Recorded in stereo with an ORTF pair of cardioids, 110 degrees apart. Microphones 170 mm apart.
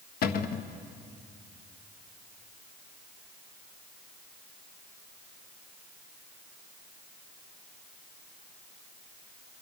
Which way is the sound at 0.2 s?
60° left.